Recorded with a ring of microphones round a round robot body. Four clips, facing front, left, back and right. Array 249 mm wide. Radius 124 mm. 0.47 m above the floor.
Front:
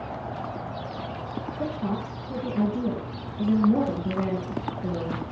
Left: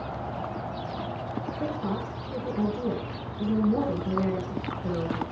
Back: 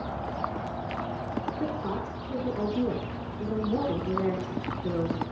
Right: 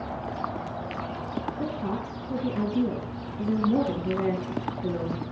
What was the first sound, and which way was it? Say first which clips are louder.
A woman speaking: even, front 2 dB; 40° right.